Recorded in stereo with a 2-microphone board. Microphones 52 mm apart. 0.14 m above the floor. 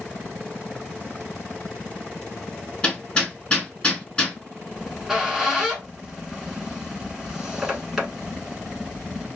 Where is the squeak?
10° right (ahead or behind), 0.9 m.